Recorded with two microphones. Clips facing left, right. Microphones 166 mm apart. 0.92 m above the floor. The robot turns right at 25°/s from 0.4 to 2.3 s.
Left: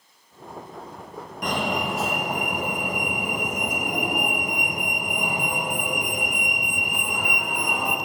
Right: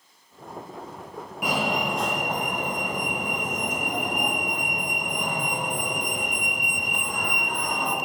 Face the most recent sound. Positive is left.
turn(degrees=10)  # may be behind; listen again after turning